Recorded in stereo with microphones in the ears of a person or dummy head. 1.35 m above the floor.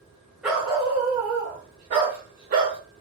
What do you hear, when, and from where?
0.4 s a dog barking: 5° right (ahead or behind), 1.2 m; by 2.8 s 45° right (ahead or behind), 1.5 m